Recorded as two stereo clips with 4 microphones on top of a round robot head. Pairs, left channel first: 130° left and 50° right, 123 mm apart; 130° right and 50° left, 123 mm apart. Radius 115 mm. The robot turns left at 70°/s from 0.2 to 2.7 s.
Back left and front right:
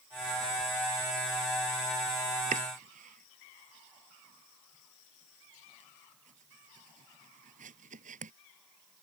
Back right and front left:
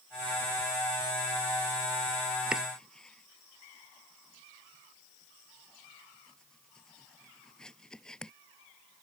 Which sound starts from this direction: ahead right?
Chopping, at 2.5 s.